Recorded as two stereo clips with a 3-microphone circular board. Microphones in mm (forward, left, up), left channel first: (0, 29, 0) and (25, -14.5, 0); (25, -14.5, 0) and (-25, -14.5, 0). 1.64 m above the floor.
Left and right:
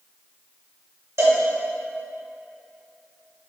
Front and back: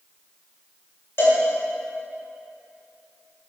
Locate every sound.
1.2 s a cowbell: 40° right, 1.7 m